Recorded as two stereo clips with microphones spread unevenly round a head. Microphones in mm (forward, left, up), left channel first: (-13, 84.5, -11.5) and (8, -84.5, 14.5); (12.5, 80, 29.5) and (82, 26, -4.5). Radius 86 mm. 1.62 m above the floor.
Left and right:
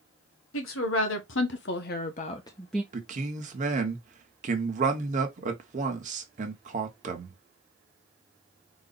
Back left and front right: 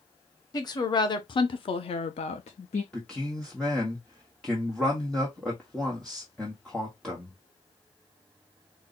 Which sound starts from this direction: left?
A woman speaking, at 0.5 s.